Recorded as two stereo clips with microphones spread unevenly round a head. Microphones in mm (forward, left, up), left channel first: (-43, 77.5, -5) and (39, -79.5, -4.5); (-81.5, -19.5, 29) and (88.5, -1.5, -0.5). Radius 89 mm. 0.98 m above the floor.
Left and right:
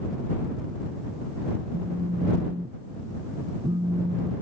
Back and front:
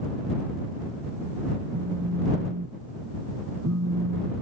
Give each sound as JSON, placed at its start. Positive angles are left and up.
{"t": 1.7, "sound": "a phone buzzing", "azimuth_deg": 5}